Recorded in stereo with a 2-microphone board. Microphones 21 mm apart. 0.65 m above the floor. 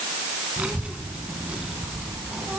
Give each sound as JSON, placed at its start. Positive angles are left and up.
{"t": 0.6, "sound": "a child speaking", "side_deg": -85, "distance_m": 4.0}